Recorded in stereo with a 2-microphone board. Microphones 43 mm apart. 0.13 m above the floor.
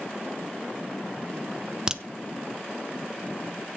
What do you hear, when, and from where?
1.9 s a crack: 15° right (ahead or behind), 1.1 m